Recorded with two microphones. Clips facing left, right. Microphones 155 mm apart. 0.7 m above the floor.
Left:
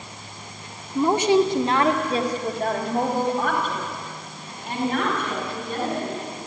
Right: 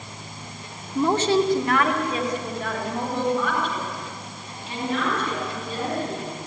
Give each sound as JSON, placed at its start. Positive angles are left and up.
{"t": 0.9, "sound": "a woman speaking", "side_deg": 5, "distance_m": 1.9}